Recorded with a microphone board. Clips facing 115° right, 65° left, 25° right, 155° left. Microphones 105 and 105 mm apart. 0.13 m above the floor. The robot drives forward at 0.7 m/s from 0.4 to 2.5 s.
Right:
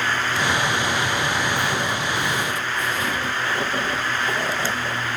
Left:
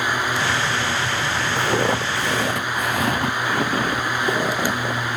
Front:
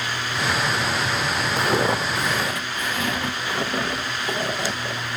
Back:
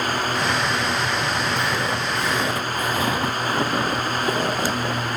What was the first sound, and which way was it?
Footsteps, 20° left.